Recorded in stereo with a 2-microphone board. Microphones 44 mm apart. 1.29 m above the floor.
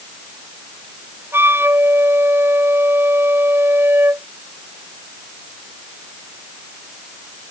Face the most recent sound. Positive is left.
turn(degrees=-65)  # may be behind; listen again after turning